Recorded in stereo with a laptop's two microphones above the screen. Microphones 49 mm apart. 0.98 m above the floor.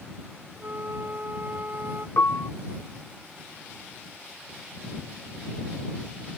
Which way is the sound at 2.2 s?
60° left (ahead or behind).